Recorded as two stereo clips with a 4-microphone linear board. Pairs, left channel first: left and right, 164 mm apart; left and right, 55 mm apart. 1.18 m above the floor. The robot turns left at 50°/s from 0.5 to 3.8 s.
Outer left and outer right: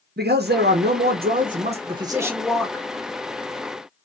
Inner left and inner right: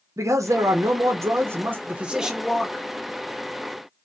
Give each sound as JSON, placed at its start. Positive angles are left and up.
{"t": 0.2, "sound": "a man speaking", "azimuth_deg": -80, "distance_m": 0.7}